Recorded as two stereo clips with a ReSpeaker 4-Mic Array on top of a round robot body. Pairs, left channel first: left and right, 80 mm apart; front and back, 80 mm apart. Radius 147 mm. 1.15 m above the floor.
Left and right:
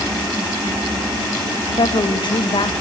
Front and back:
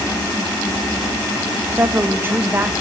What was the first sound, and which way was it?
A woman speaking, 115° left.